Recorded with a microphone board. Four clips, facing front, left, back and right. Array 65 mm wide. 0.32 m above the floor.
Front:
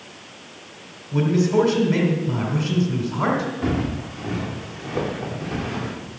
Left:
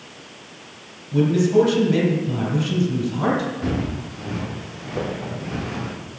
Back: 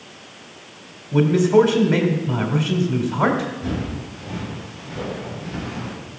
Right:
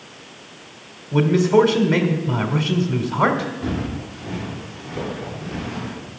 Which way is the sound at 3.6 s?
15° left.